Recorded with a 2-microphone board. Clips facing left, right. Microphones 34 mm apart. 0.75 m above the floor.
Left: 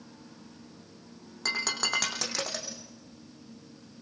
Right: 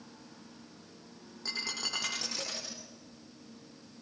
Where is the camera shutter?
I don't hear a camera shutter.